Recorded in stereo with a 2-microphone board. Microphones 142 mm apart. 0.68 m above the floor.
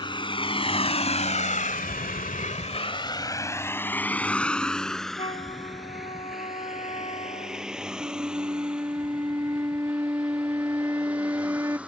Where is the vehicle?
35° left (ahead or behind); by 11.9 s 10° right (ahead or behind).